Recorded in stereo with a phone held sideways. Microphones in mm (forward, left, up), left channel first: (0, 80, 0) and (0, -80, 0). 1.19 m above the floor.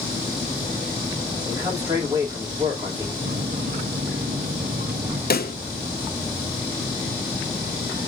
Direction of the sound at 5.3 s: 75° left (ahead or behind).